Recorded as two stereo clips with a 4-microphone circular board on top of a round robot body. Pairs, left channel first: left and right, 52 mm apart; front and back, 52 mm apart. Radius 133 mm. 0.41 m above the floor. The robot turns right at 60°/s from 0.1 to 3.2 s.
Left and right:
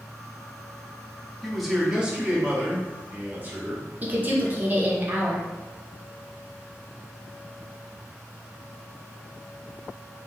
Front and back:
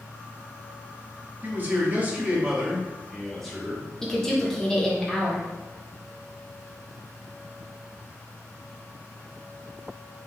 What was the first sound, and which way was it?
A man speaking, 175° left.